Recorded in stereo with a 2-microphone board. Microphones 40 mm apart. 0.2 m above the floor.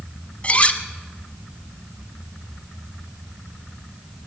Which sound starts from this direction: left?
Cutlery clinking, at 0.4 s.